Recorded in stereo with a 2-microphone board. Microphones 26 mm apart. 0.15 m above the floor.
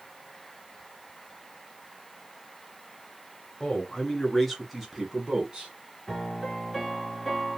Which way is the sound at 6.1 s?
Centre (ahead or behind).